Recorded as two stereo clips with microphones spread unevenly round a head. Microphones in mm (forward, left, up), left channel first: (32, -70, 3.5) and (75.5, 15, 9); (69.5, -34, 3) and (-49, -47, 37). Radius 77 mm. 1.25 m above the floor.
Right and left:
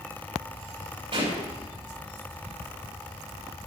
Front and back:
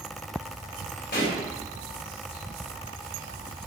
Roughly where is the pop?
Ahead left.